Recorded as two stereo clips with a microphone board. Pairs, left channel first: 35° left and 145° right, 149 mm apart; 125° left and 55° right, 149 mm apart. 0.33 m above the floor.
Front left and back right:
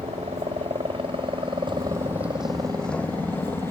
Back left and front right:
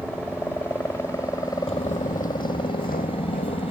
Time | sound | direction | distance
0.0 | a helicopter | 160° right | ?
1.7 | footsteps | 160° left | ?